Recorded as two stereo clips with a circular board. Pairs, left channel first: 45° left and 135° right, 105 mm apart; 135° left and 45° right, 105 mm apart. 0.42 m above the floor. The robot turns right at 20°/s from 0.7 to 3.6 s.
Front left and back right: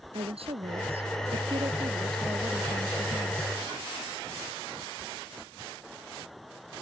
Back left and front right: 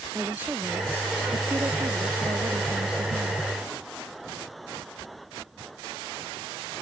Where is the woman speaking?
120° right; by 3.4 s 65° right.